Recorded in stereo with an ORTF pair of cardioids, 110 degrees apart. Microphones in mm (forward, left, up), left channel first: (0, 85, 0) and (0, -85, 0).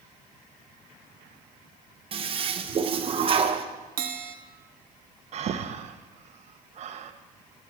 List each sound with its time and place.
2.1 s a toilet flushing: 35° right, 1.0 m
4.0 s a bell: 60° right, 1.1 m
5.3 s breathing: 45° right, 0.9 m